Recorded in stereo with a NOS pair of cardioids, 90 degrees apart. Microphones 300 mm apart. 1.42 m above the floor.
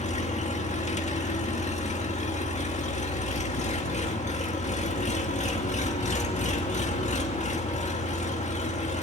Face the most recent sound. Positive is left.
turn(degrees=25)